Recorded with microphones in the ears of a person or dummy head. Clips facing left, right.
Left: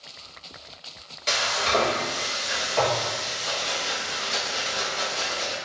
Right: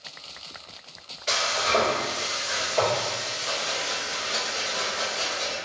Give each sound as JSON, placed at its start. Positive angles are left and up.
{"t": 1.3, "sound": "frying", "side_deg": 45, "distance_m": 1.1}